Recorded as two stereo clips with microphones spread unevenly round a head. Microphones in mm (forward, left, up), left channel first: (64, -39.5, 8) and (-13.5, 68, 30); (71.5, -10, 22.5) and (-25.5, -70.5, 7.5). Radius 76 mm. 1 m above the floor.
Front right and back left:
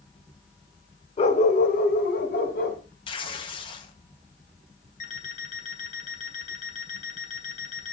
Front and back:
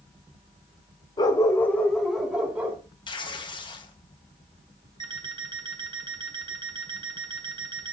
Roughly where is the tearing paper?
Ahead.